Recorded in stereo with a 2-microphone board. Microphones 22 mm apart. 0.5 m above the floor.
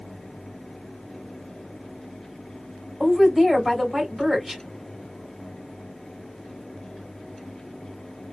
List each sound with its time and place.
3.0 s a woman speaking: 5° right (ahead or behind), 2 m